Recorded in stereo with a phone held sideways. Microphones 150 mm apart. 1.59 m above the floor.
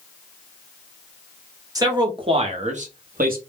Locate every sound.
1.8 s a man speaking: 25° right (ahead or behind), 1.0 m; by 3.4 s 75° right (ahead or behind), 0.7 m